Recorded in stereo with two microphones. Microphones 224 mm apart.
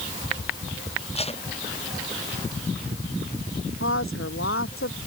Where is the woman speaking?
70° left (ahead or behind).